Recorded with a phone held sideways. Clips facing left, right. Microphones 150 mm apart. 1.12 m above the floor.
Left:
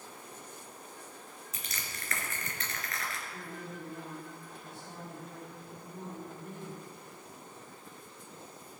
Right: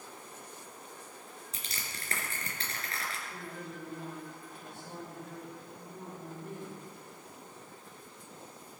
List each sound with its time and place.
1.5 s crushing: 35° right (ahead or behind), 3 m
3.3 s a woman speaking: 80° right, 5.5 m